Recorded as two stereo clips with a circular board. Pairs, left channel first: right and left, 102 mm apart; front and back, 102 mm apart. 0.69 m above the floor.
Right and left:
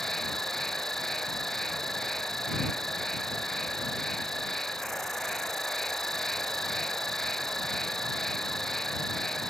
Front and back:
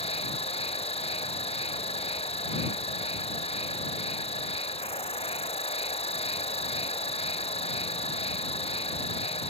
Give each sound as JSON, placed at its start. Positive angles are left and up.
{"t": 0.0, "sound": "an insect", "azimuth_deg": 0}